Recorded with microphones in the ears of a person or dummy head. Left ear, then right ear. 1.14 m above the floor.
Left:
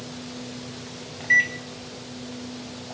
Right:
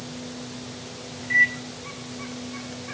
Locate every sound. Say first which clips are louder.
1.2 s a microwave: even; 45° left (ahead or behind), 6 m